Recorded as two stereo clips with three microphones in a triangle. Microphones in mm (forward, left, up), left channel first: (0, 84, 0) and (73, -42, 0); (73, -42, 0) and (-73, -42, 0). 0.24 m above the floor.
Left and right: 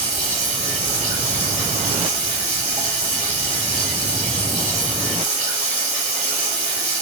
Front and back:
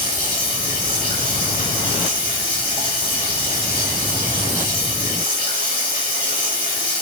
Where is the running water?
15° right, 5.5 m.